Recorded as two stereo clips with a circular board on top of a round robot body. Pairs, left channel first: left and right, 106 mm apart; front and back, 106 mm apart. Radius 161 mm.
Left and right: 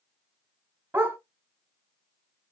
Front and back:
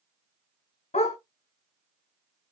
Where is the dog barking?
20° right, 1.1 m.